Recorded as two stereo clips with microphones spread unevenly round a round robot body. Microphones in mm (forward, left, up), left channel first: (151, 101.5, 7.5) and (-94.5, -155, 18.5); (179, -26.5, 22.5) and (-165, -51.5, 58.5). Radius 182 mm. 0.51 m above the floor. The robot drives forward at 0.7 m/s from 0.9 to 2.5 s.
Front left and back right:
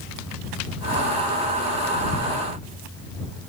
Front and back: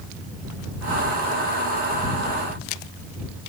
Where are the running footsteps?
I don't hear running footsteps.